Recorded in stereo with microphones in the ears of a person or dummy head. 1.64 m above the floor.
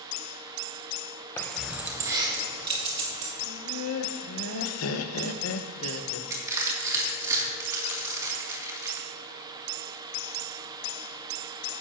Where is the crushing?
20° right (ahead or behind), 2.5 m.